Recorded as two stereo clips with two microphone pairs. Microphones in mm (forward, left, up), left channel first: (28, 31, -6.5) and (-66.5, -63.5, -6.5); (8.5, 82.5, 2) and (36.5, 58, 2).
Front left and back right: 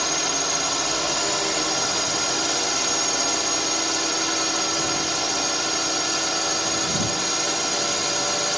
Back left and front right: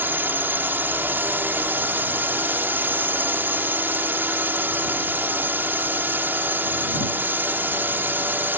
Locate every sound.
0.0 s a drone: 45° right